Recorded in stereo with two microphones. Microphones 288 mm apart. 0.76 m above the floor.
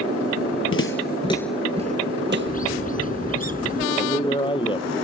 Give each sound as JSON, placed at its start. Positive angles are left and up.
{"t": 0.7, "sound": "footsteps", "side_deg": 50}
{"t": 2.5, "sound": "a bird", "side_deg": 30}
{"t": 4.0, "sound": "a man speaking", "side_deg": 15}